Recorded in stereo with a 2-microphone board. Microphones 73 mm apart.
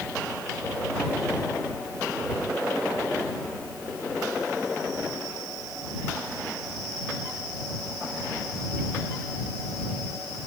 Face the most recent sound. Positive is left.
No sound to turn to.